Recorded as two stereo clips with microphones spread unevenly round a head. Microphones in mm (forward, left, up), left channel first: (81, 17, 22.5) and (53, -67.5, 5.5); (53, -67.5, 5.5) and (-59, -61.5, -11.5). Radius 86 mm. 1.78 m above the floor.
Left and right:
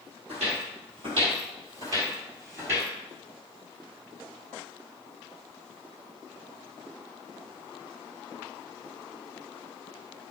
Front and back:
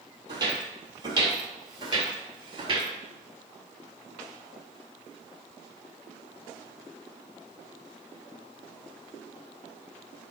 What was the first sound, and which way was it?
Footsteps, 130° right.